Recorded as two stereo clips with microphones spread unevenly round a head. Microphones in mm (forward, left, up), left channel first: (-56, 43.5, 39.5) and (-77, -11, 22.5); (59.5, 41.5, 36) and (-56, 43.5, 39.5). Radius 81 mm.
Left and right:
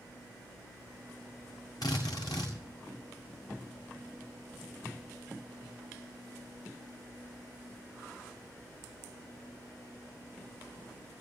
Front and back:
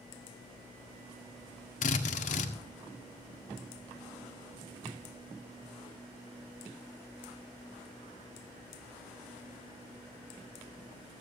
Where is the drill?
10° left, 1.7 m.